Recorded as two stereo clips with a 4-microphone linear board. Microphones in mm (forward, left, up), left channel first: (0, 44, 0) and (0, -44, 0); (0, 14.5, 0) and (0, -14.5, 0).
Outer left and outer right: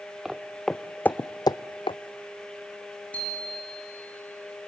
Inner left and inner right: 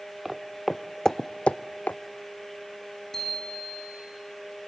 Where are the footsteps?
5° right (ahead or behind), 1.2 m; by 2.0 s 80° left, 0.7 m.